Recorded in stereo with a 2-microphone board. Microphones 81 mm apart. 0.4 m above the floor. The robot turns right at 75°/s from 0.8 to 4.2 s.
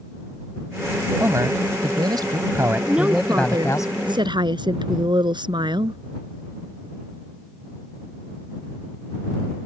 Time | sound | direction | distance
1.2 | a man speaking | 145° right | ?
2.9 | a woman speaking | 175° right | ?